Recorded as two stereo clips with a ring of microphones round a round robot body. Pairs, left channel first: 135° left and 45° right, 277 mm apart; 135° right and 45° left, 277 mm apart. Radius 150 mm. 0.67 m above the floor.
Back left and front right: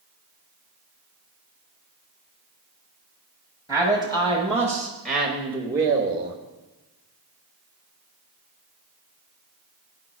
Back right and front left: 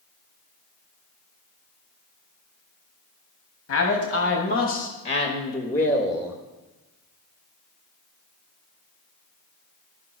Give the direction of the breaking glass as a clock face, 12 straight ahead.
No breaking glass in this recording.